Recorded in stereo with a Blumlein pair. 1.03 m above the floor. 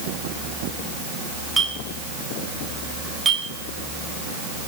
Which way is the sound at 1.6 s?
10° right.